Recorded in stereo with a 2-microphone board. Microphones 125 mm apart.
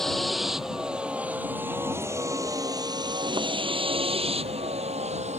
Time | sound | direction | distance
0.0 | a vehicle | 5° left (ahead or behind) | ?